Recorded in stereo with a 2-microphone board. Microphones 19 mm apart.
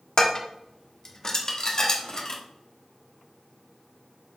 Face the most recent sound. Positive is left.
turn(degrees=35)  # may be behind; listen again after turning